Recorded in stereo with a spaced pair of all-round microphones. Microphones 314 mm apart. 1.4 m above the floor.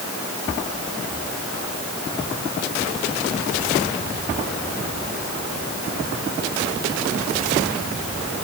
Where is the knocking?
No knocking in this recording.